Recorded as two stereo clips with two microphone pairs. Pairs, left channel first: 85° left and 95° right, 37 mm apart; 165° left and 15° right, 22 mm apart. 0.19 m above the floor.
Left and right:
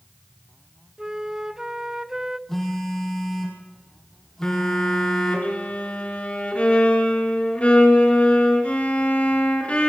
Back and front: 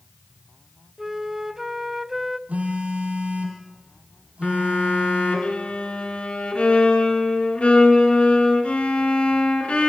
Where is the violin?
135° left, 2.5 m.